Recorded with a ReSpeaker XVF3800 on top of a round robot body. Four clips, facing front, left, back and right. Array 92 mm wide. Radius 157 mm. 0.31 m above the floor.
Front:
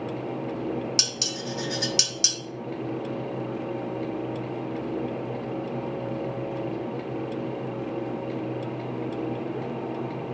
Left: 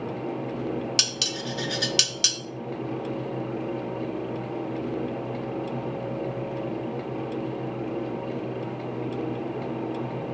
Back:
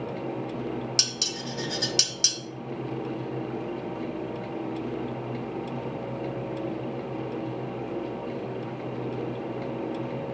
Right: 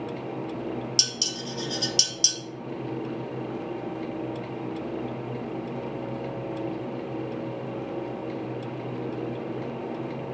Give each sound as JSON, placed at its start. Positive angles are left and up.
{"t": 1.0, "sound": "dishes clattering", "azimuth_deg": 85, "distance_m": 1.0}